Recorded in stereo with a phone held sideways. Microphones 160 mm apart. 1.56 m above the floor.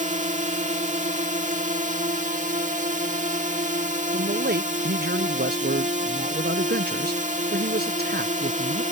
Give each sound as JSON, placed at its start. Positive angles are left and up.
{"t": 0.0, "sound": "a drone", "side_deg": -50}
{"t": 4.1, "sound": "a man speaking", "side_deg": -80}